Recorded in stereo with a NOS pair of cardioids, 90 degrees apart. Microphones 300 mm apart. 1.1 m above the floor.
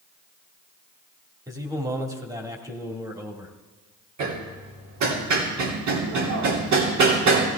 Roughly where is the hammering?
Right.